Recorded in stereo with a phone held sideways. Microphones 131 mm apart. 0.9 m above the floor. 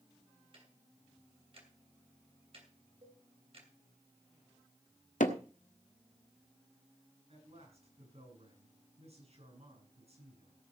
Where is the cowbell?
50° right (ahead or behind), 5.5 m.